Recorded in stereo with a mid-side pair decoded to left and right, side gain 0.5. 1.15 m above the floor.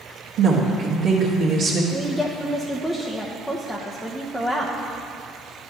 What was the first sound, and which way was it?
A woman speaking, 60° right.